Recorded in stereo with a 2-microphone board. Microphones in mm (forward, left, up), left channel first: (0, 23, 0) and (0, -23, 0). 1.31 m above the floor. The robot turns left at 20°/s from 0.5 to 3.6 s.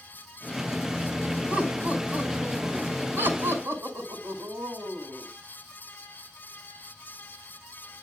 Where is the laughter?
20° right, 6 m; by 5.3 s 65° right, 6 m.